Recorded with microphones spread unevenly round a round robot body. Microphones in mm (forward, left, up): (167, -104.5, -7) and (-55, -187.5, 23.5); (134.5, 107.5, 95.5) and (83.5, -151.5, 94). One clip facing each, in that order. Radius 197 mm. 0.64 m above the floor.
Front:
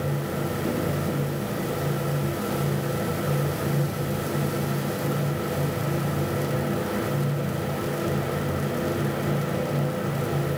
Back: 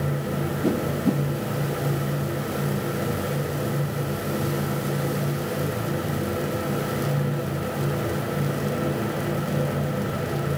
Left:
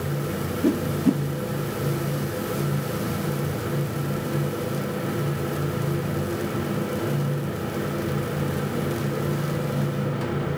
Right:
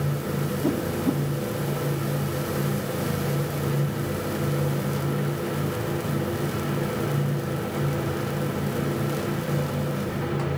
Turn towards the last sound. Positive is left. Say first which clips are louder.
# back 7 dB, left 4 dB
turn(degrees=145)